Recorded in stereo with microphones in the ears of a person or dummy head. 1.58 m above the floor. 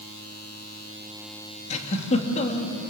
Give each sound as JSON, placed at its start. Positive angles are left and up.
{"t": 1.7, "sound": "a giggle", "side_deg": 40, "distance_m": 2.5}